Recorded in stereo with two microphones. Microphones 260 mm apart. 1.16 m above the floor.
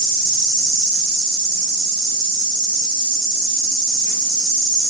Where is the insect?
35° right (ahead or behind), 0.9 m.